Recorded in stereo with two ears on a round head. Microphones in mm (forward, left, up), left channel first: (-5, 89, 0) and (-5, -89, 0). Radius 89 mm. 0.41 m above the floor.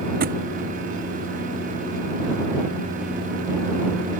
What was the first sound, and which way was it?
A thud, 50° right (ahead or behind).